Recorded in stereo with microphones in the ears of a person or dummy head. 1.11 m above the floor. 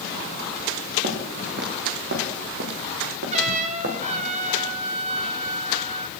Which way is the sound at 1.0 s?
50° right (ahead or behind).